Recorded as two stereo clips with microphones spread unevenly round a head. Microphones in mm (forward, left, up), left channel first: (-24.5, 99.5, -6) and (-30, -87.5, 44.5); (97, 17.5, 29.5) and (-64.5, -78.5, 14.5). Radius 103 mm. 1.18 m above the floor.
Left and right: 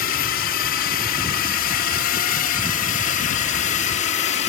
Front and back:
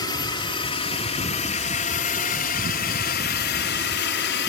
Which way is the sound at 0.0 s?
100° left.